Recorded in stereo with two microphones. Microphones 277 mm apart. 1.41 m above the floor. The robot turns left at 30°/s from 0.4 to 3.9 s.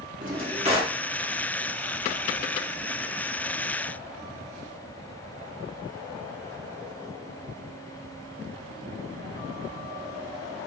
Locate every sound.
0.2 s a drawer: 30° right (ahead or behind), 1.7 m; by 1.0 s 15° right (ahead or behind), 1.7 m